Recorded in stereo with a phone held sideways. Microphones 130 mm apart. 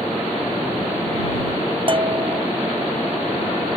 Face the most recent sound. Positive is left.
turn(degrees=-40)  # may be behind; listen again after turning